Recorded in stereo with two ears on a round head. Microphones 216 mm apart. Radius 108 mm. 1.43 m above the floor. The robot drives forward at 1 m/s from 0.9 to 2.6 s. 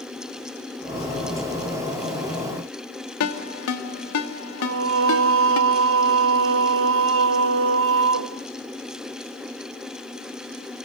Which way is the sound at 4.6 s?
55° right (ahead or behind).